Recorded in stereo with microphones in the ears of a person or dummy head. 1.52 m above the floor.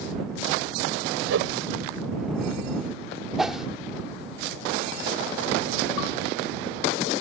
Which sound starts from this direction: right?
A whoosh, at 1.3 s.